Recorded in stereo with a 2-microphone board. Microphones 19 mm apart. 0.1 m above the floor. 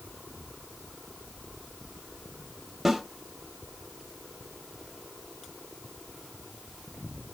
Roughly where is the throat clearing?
I don't hear throat clearing.